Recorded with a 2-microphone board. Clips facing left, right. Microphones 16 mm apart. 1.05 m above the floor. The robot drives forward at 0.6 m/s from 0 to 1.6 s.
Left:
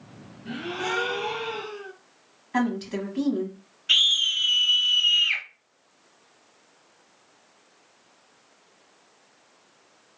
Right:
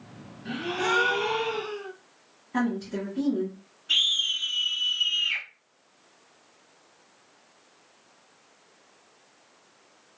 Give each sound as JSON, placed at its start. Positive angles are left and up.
{"t": 0.5, "sound": "a gasp", "side_deg": -35, "distance_m": 0.8}
{"t": 2.5, "sound": "a woman speaking", "side_deg": 45, "distance_m": 1.1}
{"t": 3.9, "sound": "a scream", "side_deg": 50, "distance_m": 0.9}